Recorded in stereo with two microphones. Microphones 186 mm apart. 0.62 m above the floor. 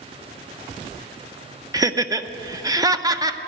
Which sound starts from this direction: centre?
Laughter, at 1.7 s.